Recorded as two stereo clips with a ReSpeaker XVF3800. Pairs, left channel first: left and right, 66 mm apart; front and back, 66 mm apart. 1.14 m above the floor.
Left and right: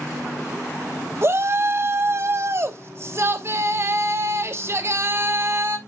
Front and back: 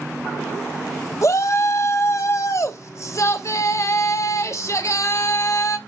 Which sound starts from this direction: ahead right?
A shout, at 1.2 s.